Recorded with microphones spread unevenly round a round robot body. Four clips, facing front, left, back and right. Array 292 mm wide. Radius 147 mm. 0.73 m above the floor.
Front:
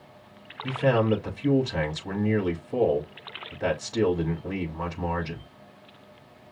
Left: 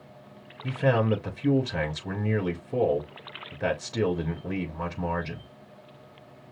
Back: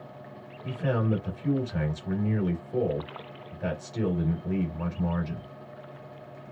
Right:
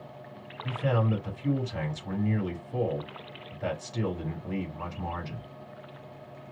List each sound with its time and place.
0.6 s a man speaking: 65° left, 3.5 m